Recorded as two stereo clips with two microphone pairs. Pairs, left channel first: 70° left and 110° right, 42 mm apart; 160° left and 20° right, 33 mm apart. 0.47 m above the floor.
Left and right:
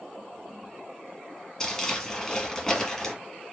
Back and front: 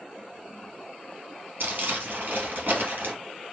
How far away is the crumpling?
About 2 m.